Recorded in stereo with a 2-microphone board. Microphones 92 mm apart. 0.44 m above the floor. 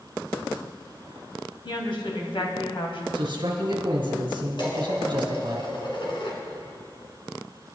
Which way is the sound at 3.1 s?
60° right (ahead or behind).